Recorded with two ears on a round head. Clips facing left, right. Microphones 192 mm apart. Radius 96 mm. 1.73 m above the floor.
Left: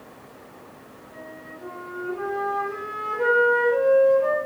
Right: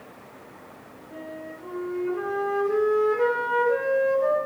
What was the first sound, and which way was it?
A flute, 70° right (ahead or behind).